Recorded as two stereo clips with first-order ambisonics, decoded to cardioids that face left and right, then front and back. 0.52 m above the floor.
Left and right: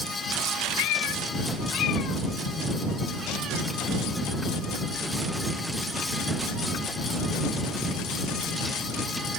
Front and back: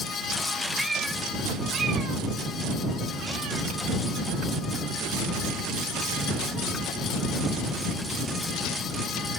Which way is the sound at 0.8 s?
95° left.